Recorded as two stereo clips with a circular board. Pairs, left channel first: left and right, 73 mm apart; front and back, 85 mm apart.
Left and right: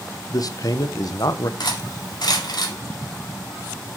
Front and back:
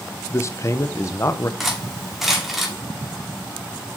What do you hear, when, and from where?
0.3 s a man speaking: 55° left, 0.7 m
1.6 s cutlery clinking: 90° left, 2.0 m